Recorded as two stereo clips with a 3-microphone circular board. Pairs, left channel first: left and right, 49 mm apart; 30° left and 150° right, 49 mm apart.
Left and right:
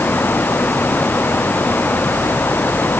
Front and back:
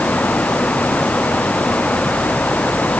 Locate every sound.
Only background noise.